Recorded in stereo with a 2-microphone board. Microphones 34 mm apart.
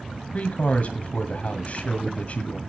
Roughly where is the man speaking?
Left.